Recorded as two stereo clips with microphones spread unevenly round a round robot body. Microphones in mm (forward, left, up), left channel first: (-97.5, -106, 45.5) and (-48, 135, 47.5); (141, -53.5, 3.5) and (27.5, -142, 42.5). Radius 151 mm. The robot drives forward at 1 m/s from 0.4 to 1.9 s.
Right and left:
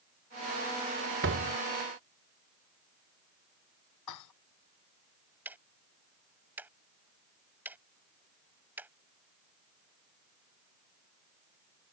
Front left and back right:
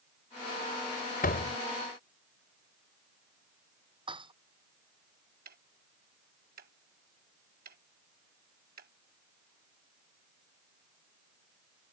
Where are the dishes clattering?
90° right.